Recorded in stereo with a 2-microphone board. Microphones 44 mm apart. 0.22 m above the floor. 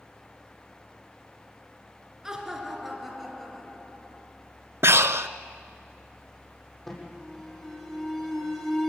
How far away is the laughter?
About 3 m.